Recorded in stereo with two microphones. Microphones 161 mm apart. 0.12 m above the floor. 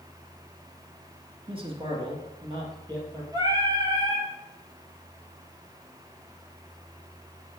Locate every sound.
1.5 s a man speaking: 35° right (ahead or behind), 1.2 m; by 3.2 s 25° right (ahead or behind), 2.5 m
3.3 s singing: 25° right (ahead or behind), 1.8 m